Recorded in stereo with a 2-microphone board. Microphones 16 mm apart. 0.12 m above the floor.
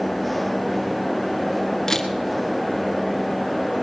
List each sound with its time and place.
1.9 s a camera shutter: 25° left (ahead or behind), 1.6 m